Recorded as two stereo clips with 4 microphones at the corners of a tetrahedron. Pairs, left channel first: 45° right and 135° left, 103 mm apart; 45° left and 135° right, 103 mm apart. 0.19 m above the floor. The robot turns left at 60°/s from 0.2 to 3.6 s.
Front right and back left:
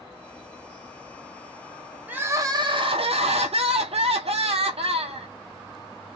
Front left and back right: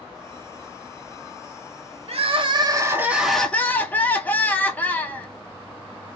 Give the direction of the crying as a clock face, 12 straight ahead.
5 o'clock.